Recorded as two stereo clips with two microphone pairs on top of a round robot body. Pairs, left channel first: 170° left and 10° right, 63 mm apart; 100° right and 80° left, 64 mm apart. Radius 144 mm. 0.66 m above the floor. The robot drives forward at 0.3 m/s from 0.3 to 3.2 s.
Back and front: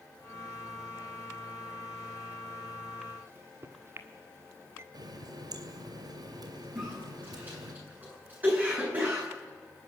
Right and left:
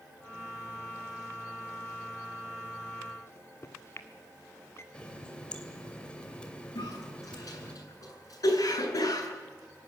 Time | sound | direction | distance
3.3 | a microwave | 60° right | 1.7 m
4.9 | a running tap | 25° right | 2.5 m
6.8 | a cough | 75° right | 9.5 m